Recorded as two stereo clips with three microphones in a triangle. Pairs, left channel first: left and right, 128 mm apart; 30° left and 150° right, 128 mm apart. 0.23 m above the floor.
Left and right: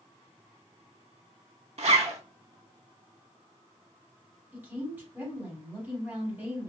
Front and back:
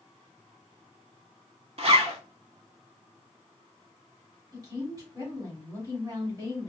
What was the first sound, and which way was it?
A zipper, 115° right.